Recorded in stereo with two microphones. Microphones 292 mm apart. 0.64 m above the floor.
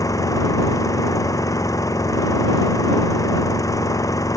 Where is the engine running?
10° left (ahead or behind).